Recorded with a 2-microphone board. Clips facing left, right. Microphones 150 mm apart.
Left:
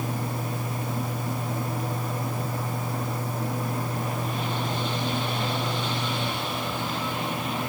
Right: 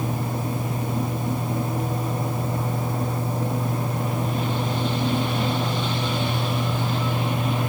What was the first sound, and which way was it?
Only background noise.